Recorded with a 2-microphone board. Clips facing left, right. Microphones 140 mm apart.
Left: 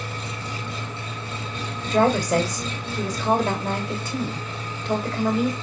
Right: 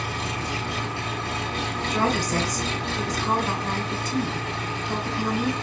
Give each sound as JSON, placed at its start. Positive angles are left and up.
{"t": 0.0, "sound": "an engine running", "side_deg": -85, "distance_m": 1.6}
{"t": 1.9, "sound": "a woman speaking", "side_deg": 50, "distance_m": 2.0}